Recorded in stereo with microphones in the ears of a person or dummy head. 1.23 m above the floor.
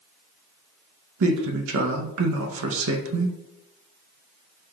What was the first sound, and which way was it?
A man speaking, 70° right (ahead or behind).